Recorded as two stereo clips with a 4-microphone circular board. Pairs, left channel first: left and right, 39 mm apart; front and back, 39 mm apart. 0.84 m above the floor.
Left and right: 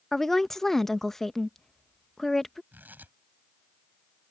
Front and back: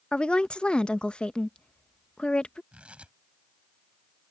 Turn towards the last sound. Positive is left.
turn(degrees=-125)